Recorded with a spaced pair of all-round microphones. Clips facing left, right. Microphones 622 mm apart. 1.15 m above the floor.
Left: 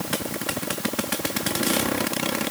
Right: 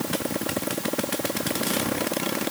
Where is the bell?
I don't hear a bell.